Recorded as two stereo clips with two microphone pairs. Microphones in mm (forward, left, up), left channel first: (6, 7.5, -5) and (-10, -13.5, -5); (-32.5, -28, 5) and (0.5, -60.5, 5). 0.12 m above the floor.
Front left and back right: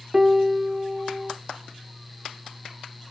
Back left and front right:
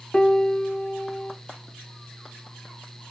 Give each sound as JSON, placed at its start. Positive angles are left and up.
{"t": 0.1, "sound": "a piano", "azimuth_deg": -175, "distance_m": 0.7}